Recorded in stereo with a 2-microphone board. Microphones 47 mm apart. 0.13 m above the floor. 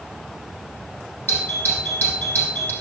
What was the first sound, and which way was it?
A doorbell, 40° left (ahead or behind).